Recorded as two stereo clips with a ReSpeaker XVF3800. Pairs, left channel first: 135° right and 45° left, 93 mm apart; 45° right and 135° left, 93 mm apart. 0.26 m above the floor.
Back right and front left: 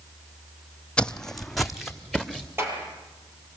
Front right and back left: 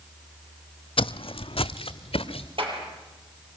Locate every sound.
1.0 s footsteps: 55° right, 0.7 m; by 2.5 s 40° right, 1.8 m
2.6 s a clap: 110° left, 6 m